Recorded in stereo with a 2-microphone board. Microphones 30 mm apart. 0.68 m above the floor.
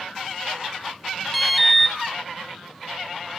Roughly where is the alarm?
Centre.